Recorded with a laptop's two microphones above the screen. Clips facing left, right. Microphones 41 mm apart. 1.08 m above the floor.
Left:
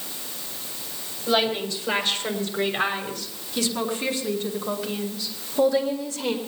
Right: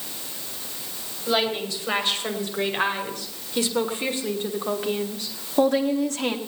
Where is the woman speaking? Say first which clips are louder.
Left 1 dB; 10° right (ahead or behind), 6.5 m; by 6.4 s 70° right (ahead or behind), 2.5 m.